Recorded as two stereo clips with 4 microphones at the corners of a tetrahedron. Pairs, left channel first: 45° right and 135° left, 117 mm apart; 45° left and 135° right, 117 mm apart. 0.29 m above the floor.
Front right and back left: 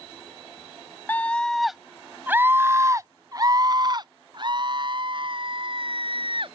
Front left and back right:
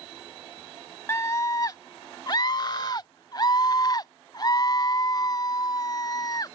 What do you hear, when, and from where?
1.1 s a scream: 10° left; by 6.6 s 100° left